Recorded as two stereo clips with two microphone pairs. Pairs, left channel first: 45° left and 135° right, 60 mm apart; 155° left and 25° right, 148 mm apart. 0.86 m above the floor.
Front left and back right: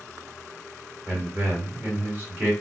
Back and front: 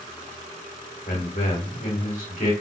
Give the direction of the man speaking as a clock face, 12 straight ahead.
6 o'clock.